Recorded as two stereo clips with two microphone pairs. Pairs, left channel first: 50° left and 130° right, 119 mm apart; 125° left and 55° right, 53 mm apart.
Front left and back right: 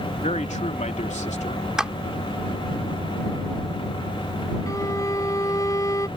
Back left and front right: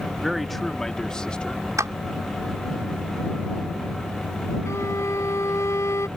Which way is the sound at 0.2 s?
30° left.